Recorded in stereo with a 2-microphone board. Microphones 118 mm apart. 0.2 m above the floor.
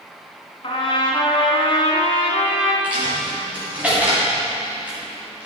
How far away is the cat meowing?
I don't hear a cat meowing.